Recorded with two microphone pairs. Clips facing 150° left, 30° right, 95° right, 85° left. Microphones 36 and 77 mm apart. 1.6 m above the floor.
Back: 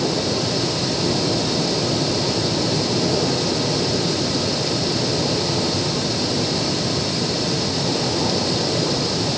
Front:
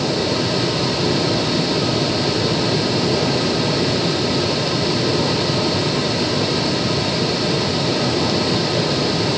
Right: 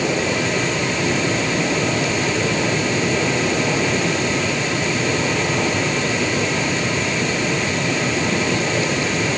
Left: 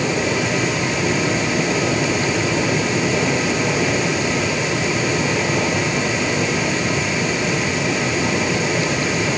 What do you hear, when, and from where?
Only background noise.